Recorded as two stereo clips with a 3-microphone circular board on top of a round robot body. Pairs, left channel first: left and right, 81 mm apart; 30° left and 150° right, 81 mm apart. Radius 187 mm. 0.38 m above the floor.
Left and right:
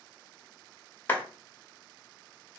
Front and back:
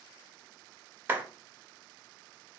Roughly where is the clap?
Behind left.